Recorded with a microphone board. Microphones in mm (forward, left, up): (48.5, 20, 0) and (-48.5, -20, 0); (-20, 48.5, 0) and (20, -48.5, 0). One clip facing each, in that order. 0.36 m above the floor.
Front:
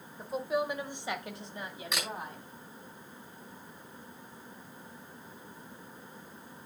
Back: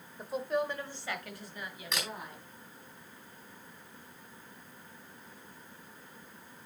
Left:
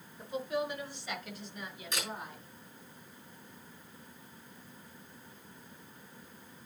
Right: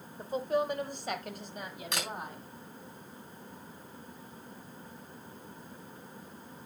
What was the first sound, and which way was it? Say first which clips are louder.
A woman speaking: front 1 dB, right 4 dB; 75° right.